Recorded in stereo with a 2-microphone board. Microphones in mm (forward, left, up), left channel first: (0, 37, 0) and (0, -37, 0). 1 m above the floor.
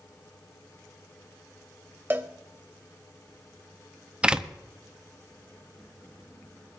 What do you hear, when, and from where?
2.1 s a cowbell: 30° right (ahead or behind), 0.9 m
4.2 s a door slam: 15° right (ahead or behind), 0.7 m